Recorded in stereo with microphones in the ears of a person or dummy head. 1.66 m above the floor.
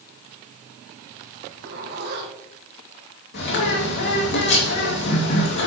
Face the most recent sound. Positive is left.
turn(degrees=60)  # may be behind; listen again after turning